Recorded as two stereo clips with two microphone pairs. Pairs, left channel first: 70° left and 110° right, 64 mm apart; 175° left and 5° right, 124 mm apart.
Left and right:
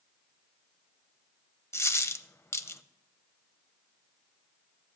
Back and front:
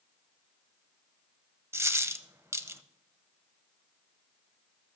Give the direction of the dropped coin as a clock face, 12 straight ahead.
10 o'clock.